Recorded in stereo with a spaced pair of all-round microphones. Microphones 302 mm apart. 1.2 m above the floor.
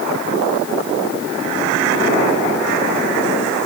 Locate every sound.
Only background noise.